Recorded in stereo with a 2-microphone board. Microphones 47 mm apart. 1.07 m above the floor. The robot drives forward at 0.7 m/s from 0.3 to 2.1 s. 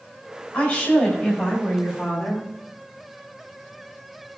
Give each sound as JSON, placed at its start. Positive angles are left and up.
{"t": 0.5, "sound": "a woman speaking", "side_deg": 40, "distance_m": 4.0}